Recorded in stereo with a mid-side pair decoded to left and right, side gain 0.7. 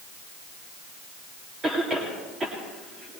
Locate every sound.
1.6 s a cough: 25° right, 2.5 m